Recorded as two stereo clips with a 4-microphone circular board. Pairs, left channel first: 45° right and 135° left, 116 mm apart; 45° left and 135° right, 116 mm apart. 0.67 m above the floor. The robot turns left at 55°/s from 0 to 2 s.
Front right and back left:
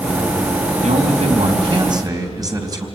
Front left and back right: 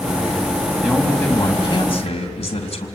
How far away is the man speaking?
About 3.5 m.